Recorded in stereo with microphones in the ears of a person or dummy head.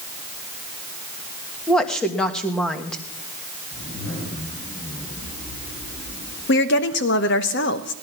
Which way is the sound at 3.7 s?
50° left (ahead or behind).